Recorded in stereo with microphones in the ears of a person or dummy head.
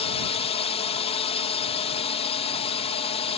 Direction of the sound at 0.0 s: 35° left (ahead or behind).